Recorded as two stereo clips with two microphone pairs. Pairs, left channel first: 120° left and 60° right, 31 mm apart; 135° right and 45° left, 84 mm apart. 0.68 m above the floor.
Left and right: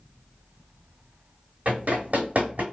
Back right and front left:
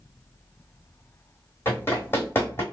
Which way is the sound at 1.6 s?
75° right.